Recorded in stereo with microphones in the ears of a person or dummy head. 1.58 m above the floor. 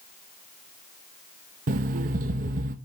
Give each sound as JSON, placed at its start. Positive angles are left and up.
{"t": 1.7, "sound": "an alarm clock", "side_deg": -45, "distance_m": 1.1}